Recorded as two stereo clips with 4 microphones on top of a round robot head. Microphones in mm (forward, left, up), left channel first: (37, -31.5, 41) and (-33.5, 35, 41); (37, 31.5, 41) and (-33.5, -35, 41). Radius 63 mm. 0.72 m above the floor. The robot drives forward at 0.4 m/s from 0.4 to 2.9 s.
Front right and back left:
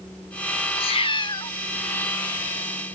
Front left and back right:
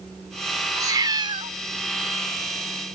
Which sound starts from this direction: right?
A cat meowing, at 0.8 s.